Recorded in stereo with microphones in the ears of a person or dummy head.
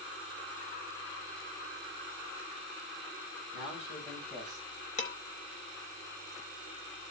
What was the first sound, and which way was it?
A man speaking, centre (ahead or behind).